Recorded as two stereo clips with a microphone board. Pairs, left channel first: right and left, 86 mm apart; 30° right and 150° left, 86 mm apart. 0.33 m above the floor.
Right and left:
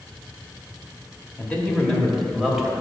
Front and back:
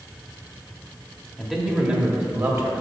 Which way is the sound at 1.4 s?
120° right.